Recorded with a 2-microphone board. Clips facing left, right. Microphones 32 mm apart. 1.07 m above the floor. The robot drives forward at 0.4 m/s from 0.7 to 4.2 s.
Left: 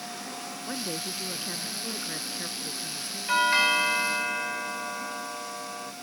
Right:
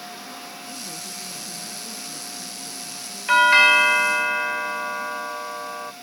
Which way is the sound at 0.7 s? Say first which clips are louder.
Left 2 dB; 45° left (ahead or behind).